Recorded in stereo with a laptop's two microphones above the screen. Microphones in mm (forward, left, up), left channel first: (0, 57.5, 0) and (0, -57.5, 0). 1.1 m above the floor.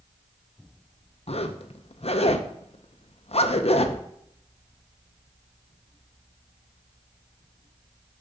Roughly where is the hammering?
No hammering in this recording.